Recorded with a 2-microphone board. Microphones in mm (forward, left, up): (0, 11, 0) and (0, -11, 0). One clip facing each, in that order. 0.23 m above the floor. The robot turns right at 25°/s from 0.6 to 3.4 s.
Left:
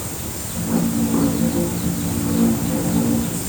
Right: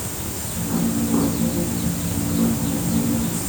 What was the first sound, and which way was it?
Only background noise.